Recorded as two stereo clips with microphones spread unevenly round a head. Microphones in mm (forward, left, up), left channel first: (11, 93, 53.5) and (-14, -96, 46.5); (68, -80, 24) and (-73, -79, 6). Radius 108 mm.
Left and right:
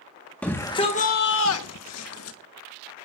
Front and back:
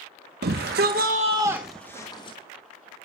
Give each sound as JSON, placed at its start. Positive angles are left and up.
{"t": 0.4, "sound": "a shout", "azimuth_deg": 165, "distance_m": 1.6}